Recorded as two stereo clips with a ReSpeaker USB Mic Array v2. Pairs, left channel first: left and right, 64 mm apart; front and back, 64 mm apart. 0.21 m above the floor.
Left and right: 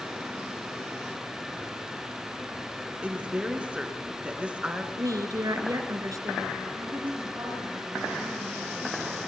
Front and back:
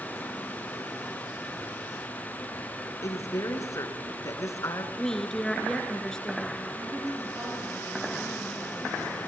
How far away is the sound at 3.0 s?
About 3 m.